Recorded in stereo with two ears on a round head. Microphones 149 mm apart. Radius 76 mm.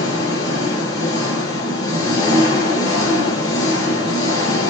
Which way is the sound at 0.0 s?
20° left (ahead or behind).